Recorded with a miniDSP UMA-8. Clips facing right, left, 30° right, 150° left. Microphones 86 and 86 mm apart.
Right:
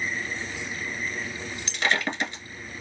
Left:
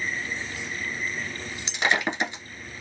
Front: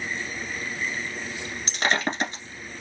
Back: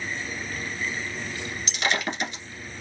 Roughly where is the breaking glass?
Ahead left.